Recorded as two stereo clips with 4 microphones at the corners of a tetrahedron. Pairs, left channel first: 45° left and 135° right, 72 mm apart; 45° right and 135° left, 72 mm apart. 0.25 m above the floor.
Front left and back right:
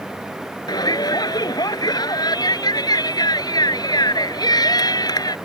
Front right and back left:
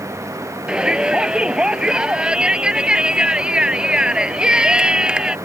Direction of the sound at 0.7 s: 60° left.